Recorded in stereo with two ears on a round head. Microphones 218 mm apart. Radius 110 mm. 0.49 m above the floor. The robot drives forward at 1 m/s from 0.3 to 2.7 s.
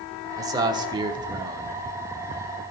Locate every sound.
0.4 s a man speaking: 15° right (ahead or behind), 1.1 m